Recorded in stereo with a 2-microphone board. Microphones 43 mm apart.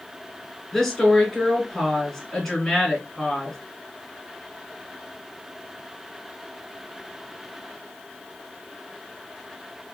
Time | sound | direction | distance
0.7 | a woman speaking | 15° left (ahead or behind) | 2 m